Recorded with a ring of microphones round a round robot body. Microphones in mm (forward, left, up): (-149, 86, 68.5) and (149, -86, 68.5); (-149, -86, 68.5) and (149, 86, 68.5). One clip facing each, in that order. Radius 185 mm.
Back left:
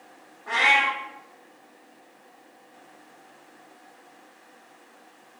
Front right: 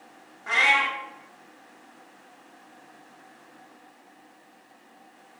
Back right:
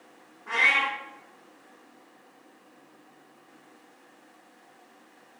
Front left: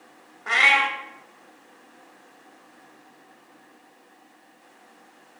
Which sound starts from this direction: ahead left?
A cat meowing, at 0.5 s.